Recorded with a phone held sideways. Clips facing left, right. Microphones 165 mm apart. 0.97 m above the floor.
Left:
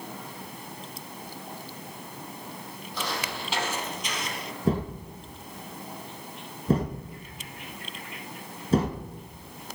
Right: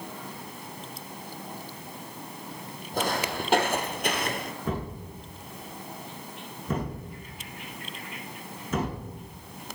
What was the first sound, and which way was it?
Footsteps, 50° right (ahead or behind).